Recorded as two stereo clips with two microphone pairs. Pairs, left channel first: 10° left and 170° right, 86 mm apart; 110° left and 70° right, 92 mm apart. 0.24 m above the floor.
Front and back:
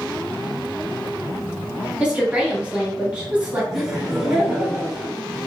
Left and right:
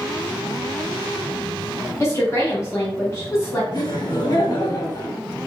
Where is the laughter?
100° left, 1.8 m.